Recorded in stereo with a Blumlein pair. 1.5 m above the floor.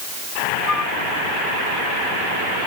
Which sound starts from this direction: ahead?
A flute, at 0.7 s.